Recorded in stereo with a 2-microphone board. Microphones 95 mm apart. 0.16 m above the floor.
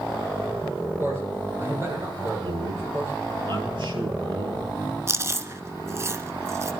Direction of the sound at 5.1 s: 30° right (ahead or behind).